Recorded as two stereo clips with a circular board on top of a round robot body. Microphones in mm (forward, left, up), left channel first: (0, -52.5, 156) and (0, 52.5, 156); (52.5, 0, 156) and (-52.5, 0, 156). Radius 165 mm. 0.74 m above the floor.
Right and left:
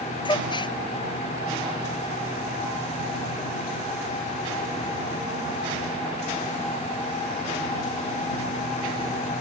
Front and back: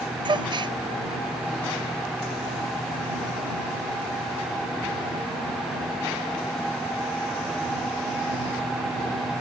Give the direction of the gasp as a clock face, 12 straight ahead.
4 o'clock.